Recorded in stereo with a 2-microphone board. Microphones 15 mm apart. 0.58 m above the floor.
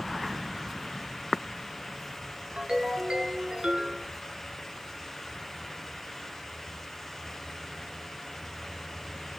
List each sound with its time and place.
2.6 s a ringtone: 55° right (ahead or behind), 5.5 m